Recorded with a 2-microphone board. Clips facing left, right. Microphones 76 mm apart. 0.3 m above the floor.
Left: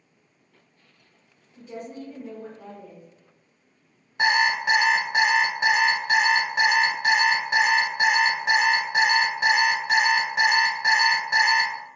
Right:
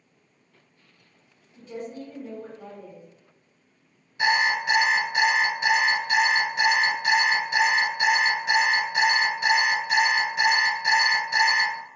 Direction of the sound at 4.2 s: 50° left (ahead or behind).